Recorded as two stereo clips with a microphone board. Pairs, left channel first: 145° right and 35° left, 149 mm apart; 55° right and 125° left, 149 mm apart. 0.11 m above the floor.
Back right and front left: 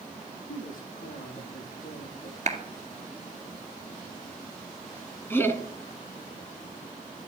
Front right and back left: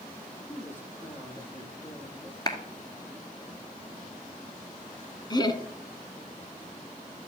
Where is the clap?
5° left, 1.8 m.